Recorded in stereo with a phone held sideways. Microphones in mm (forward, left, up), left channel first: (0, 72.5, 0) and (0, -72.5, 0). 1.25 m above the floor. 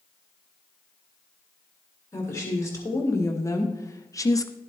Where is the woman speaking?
20° left (ahead or behind), 2.5 m; by 4.5 s 25° left (ahead or behind), 0.5 m.